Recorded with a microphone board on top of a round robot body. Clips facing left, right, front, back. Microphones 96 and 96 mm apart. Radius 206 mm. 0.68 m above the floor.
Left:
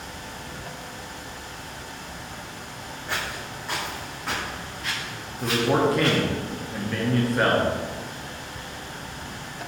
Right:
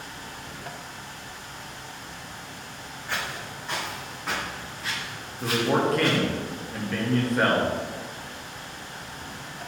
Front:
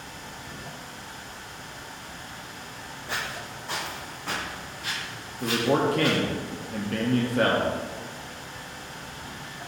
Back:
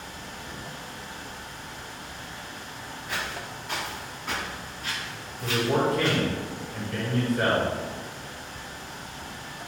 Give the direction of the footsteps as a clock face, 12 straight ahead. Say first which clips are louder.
Left 1 dB, even; 11 o'clock.